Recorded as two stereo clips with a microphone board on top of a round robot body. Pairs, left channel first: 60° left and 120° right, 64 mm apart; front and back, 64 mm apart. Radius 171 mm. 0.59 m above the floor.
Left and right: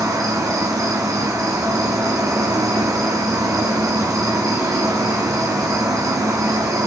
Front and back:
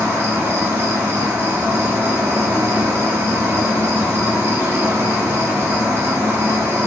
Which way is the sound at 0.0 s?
135° right.